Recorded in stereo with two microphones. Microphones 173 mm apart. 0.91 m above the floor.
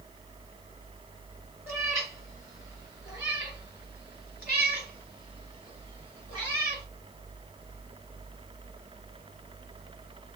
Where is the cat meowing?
15° right (ahead or behind), 1.6 m; by 6.8 s 30° right (ahead or behind), 4 m.